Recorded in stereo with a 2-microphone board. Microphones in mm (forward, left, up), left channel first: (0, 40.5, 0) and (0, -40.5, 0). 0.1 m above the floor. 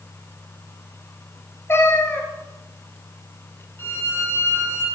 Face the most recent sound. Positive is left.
turn(degrees=35)  # may be behind; listen again after turning